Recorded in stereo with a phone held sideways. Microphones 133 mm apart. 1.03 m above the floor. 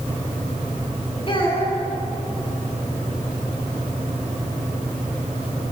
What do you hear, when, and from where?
1.3 s a child speaking: 45° left (ahead or behind), 7.5 m